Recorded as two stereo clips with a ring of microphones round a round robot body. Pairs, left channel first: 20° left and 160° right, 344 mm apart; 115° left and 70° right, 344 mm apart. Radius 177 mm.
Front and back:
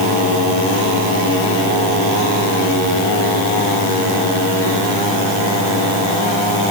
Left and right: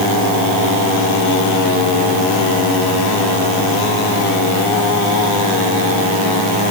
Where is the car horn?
I don't hear a car horn.